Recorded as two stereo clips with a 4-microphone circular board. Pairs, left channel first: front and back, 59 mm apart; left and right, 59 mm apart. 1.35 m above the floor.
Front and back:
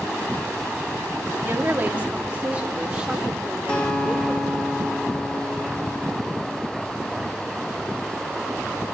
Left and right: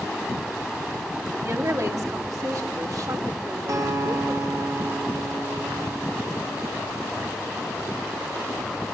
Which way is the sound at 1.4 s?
125° right.